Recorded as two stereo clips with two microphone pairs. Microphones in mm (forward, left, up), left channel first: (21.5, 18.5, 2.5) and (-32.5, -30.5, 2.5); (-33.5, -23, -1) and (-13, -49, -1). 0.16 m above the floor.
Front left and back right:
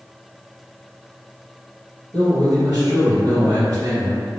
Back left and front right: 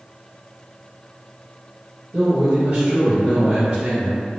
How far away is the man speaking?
About 1.5 m.